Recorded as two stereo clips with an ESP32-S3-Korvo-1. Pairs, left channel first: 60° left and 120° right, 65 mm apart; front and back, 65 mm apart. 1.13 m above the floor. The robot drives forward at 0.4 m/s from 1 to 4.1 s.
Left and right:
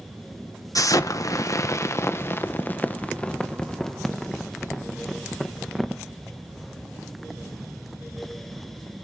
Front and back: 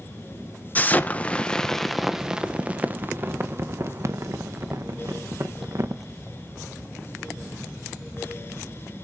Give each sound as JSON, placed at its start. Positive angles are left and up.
{"t": 0.8, "sound": "an explosion", "azimuth_deg": 55, "distance_m": 0.9}